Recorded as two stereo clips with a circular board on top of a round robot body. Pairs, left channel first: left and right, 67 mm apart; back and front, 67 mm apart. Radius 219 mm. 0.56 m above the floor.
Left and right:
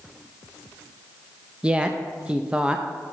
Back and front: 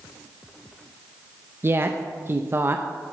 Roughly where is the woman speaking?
Ahead right.